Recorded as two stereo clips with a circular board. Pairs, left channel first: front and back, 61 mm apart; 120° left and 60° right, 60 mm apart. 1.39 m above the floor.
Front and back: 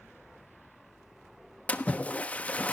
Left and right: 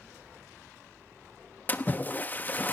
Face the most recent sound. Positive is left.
turn(degrees=65)